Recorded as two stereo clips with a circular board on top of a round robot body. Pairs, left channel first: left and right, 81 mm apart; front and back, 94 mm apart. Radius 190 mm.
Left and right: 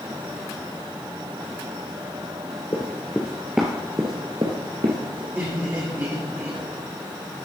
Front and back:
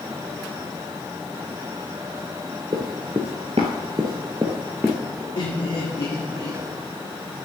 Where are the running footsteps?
140° left, 0.9 m; by 5.2 s 100° right, 1.2 m.